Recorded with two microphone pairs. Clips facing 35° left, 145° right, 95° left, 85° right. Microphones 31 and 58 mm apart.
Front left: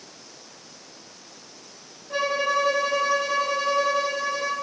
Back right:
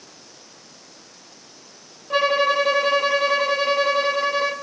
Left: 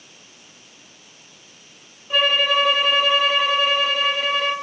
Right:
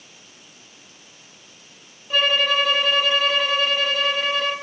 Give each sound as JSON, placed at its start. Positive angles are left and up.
{"t": 2.1, "sound": "a violin", "azimuth_deg": 180, "distance_m": 2.0}